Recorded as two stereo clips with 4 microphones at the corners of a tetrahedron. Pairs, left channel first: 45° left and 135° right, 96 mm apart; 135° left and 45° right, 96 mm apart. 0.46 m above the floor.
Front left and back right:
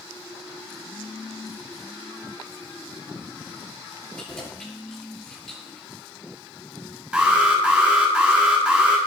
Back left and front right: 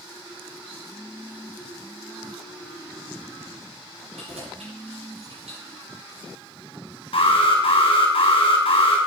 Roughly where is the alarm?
Behind left.